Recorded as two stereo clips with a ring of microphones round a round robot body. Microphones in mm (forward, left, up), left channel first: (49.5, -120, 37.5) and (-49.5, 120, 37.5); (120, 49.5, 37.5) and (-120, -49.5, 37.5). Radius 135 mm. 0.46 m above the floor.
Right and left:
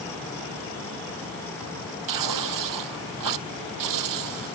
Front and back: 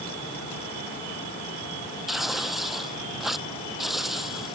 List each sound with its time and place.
2.1 s tearing paper: 115° left